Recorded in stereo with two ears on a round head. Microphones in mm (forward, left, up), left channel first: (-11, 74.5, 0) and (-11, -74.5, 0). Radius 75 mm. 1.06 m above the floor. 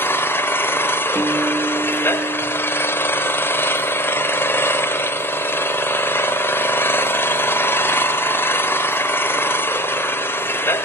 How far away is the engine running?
About 1.1 m.